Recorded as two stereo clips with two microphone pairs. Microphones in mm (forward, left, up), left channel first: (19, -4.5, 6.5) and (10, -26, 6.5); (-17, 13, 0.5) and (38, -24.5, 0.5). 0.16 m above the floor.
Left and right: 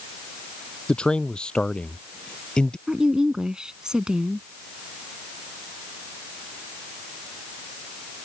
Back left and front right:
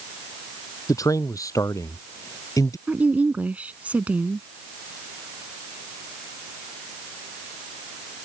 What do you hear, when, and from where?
0.9 s a man speaking: 110° left; by 2.8 s 115° left
2.9 s a woman speaking: 85° right